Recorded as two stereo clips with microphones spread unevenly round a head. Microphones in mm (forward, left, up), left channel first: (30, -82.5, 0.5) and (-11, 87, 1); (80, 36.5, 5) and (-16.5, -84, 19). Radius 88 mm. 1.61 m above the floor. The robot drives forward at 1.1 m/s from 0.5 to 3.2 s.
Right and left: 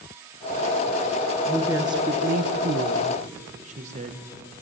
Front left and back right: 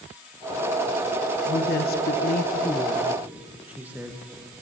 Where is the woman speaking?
25° left, 1.2 m; by 4.2 s 150° left, 1.0 m.